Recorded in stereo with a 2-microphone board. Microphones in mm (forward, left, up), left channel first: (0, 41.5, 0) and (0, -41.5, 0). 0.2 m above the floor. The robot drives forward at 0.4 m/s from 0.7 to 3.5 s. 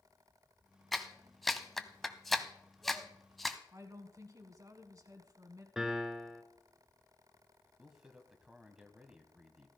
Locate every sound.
0.9 s a clap: centre (ahead or behind), 0.9 m
3.7 s a woman speaking: 45° right (ahead or behind), 1.4 m
5.8 s a piano: 5° right (ahead or behind), 0.9 m
7.8 s a man speaking: 10° right (ahead or behind), 1.2 m